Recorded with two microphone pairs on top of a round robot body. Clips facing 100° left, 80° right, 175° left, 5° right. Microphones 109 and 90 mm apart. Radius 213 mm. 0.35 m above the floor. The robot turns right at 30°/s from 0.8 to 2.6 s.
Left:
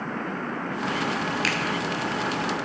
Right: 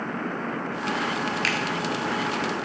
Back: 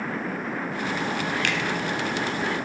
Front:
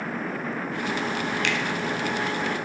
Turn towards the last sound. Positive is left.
turn(degrees=-145)